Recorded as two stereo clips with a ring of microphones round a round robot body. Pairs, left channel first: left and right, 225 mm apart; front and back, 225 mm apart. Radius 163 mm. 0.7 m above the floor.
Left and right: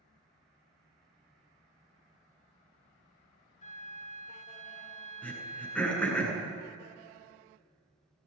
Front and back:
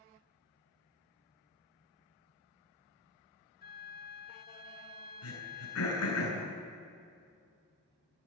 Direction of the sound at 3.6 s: 40° left.